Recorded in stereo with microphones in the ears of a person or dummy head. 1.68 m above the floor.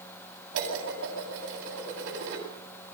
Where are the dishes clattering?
65° right (ahead or behind), 8.5 m.